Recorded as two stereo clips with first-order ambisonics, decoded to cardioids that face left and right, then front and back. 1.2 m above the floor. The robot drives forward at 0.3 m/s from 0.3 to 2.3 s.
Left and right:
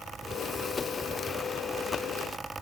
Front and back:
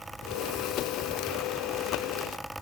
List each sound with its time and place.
Only background noise.